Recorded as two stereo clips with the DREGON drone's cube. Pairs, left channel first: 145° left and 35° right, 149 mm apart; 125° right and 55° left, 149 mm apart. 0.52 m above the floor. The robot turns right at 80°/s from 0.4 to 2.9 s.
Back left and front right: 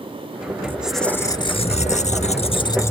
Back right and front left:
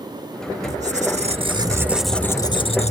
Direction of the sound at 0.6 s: 35° left.